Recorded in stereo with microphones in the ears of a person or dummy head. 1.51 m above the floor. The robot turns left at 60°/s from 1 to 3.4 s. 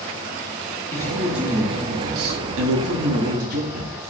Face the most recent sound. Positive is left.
turn(degrees=-130)